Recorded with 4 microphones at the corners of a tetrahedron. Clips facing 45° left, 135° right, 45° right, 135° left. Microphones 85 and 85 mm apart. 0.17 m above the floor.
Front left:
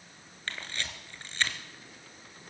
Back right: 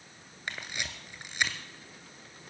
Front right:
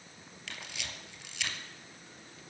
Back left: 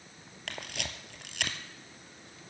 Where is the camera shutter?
150° left, 1.5 m.